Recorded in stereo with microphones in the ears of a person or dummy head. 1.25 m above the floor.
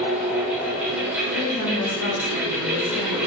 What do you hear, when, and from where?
0.0 s a fan: 5° right (ahead or behind), 0.9 m
1.3 s a woman speaking: 85° left, 1.4 m